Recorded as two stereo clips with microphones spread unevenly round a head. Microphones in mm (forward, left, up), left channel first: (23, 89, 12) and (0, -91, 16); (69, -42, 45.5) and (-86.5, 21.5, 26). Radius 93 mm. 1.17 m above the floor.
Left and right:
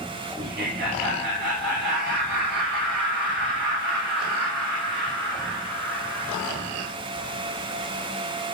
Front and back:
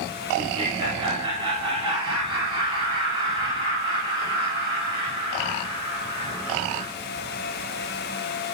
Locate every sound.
0.4 s laughter: 140° right, 5 m; by 6.9 s 130° right, 8.5 m